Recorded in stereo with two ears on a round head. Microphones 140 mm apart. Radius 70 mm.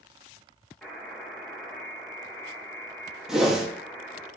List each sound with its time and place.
0.8 s a buzzer: 5° left (ahead or behind), 1.1 m
3.3 s a whoosh: 5° right (ahead or behind), 0.6 m